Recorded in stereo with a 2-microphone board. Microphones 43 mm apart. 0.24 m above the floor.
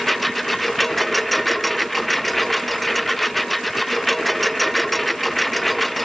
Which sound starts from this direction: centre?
A lawn mower, at 0.0 s.